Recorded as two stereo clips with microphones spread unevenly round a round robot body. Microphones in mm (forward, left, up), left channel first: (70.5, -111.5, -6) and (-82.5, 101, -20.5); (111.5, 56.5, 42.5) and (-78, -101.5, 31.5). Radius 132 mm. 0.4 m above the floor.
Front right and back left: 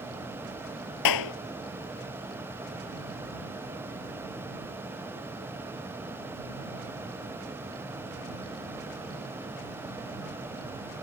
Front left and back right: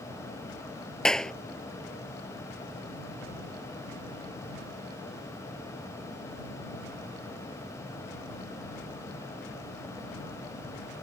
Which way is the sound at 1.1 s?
45° right.